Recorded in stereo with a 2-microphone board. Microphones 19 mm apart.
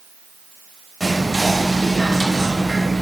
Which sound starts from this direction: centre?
Whispering, at 1.0 s.